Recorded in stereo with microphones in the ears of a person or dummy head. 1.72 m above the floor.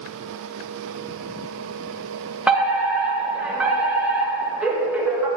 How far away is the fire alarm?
About 1.0 m.